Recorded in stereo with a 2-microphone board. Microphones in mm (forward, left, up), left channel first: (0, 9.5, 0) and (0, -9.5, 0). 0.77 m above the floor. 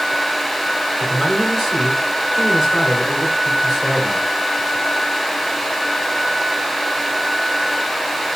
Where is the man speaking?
5° right (ahead or behind), 2.5 m.